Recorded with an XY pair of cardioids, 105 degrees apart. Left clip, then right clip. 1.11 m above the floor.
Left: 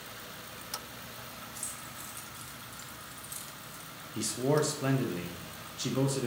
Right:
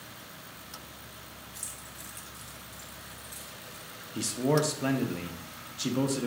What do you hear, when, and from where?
1.6 s keys jangling: 10° right, 1.2 m; by 3.9 s 60° left, 0.9 m
4.2 s a man speaking: 10° right, 0.7 m